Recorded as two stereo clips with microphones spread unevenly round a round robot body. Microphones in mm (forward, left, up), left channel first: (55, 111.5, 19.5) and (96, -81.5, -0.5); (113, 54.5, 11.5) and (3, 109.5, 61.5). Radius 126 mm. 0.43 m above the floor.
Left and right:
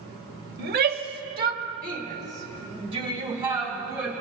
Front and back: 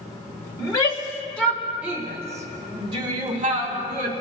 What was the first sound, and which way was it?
A shout, 65° right.